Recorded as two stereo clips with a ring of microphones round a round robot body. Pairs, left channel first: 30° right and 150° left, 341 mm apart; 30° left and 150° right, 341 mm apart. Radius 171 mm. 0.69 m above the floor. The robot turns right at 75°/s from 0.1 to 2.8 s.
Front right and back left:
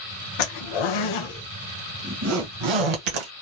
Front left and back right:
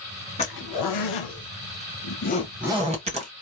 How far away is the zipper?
About 1.6 m.